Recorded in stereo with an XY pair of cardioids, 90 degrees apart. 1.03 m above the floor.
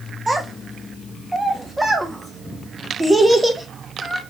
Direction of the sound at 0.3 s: 10° right.